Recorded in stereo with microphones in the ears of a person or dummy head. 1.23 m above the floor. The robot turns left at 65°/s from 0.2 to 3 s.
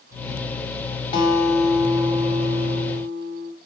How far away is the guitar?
About 3.5 m.